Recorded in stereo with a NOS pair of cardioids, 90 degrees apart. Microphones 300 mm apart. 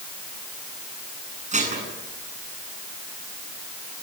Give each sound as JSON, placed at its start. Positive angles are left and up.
{"t": 1.5, "sound": "dishes clattering", "azimuth_deg": -25, "distance_m": 9.0}